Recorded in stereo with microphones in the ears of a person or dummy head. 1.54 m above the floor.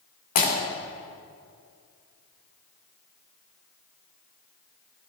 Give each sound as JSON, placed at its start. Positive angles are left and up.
{"t": 0.3, "sound": "breaking glass", "side_deg": 50, "distance_m": 3.0}